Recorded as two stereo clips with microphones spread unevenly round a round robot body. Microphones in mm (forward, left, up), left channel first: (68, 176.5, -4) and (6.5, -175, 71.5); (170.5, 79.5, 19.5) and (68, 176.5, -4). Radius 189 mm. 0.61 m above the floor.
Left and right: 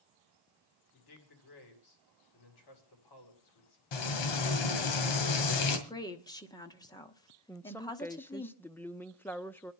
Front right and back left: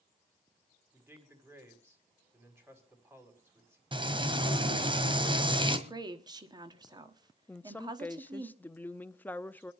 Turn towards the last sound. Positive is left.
turn(degrees=40)